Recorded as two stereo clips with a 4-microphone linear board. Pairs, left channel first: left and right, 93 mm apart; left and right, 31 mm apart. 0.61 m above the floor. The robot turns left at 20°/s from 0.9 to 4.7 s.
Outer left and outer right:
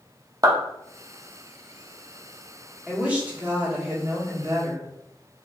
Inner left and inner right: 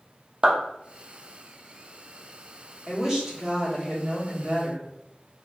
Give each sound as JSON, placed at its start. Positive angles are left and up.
{"t": 0.4, "sound": "a clap", "side_deg": -40, "distance_m": 0.7}
{"t": 2.9, "sound": "a woman speaking", "azimuth_deg": -15, "distance_m": 1.2}